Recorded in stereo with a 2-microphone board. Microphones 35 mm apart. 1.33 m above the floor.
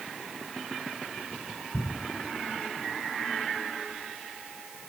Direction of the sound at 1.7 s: 45° left (ahead or behind).